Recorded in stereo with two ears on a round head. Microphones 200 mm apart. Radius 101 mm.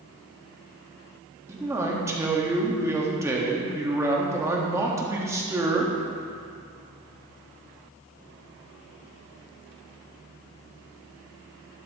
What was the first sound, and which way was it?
A man speaking, 10° right (ahead or behind).